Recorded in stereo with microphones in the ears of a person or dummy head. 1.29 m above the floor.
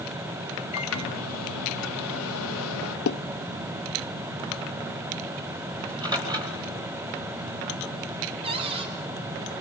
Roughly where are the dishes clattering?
Left.